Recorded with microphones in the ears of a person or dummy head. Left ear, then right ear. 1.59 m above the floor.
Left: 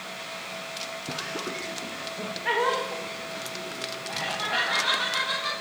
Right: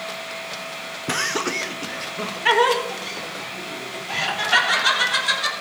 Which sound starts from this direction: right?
Laughter, at 1.1 s.